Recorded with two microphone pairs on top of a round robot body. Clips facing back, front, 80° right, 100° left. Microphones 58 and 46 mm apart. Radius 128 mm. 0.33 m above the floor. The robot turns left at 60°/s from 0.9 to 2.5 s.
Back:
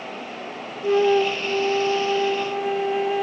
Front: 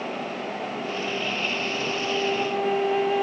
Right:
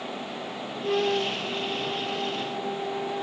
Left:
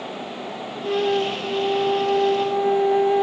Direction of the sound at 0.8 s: 170° right.